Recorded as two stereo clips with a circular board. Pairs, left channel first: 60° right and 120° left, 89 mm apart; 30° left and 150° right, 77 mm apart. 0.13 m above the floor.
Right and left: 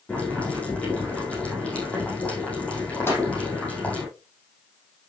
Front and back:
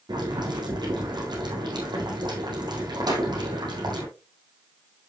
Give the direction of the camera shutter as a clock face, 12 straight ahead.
No camera shutter in this recording.